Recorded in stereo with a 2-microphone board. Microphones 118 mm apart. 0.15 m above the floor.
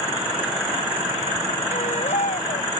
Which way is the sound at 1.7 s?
70° left (ahead or behind).